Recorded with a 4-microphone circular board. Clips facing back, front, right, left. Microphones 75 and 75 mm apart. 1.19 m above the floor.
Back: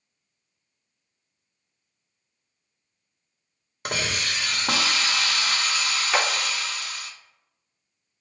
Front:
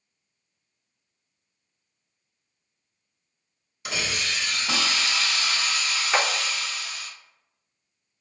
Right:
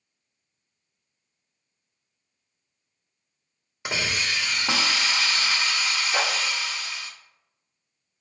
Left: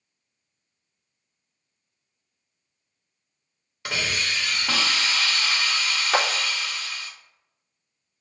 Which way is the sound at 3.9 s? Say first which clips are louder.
Back 2 dB, even; 160° right.